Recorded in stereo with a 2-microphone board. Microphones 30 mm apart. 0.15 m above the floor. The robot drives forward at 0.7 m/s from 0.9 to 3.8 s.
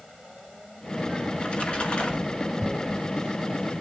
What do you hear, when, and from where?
1.3 s a splash: 40° left (ahead or behind), 2 m; by 2.5 s 45° left (ahead or behind), 2 m
2.6 s tearing paper: 25° right (ahead or behind), 3 m; by 3.0 s 30° right (ahead or behind), 3 m